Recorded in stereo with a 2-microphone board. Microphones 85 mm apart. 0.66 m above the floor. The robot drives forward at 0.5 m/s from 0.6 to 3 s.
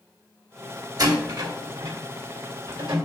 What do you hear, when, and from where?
1.0 s a door slam: 50° right (ahead or behind), 2 m; by 3.0 s 70° right (ahead or behind), 1.8 m